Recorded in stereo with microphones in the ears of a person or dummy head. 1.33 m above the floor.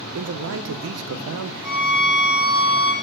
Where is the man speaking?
80° right, 0.8 m.